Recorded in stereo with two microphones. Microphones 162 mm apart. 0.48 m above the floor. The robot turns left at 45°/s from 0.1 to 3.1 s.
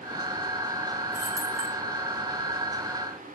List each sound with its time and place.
1.1 s keys jangling: 55° right (ahead or behind), 0.8 m; by 1.8 s 40° right (ahead or behind), 0.8 m